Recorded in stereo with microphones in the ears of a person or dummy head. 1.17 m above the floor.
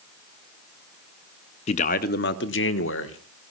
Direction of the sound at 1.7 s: 30° left (ahead or behind).